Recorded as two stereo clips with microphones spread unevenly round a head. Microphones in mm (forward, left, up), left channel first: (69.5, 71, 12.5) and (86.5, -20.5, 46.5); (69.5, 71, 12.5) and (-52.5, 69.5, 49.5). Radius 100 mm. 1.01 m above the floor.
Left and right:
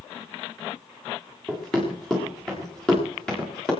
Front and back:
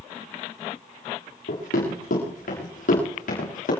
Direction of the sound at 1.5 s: 15° left.